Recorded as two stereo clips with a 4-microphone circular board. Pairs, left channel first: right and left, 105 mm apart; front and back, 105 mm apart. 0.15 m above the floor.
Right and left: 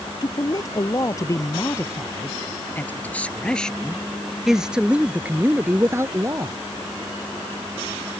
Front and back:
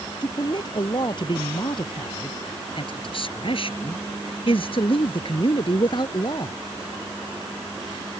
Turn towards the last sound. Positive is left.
turn(degrees=35)